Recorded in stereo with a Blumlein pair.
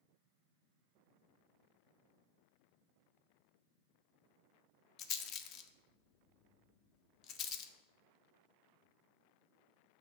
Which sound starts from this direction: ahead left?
A rattle, at 5.0 s.